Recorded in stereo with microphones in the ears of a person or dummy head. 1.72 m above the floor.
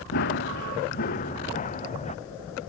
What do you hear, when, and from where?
0.1 s running footsteps: 55° left (ahead or behind); by 2.2 s 30° left (ahead or behind)